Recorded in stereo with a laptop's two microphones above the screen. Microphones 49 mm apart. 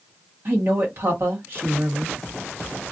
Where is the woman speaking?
50° right (ahead or behind), 1.3 m.